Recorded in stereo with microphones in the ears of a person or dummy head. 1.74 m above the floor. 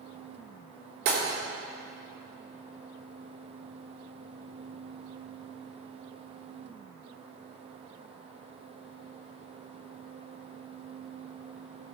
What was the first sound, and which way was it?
Breaking glass, 60° right (ahead or behind).